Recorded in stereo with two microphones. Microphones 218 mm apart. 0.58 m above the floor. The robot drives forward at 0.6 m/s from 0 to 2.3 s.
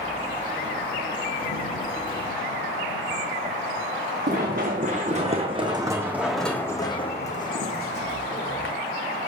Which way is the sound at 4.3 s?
45° right (ahead or behind).